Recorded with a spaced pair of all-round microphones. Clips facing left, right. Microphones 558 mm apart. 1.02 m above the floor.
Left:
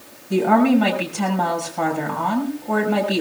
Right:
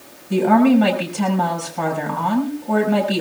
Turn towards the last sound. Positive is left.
turn(degrees=0)  # may be behind; listen again after turning